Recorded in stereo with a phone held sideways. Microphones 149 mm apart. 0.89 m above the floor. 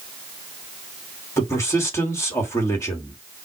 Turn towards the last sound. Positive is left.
turn(degrees=20)  # may be behind; listen again after turning